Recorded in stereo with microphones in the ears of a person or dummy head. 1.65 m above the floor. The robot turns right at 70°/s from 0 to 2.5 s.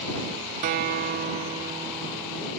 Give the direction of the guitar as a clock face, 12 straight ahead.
4 o'clock.